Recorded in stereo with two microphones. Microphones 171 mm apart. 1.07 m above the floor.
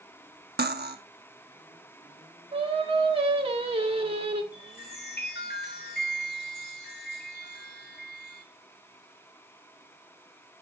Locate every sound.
0.6 s cutlery clinking: 70° right (ahead or behind), 1.0 m
2.5 s singing: 35° right (ahead or behind), 1.4 m
4.5 s a chime: 85° left, 4 m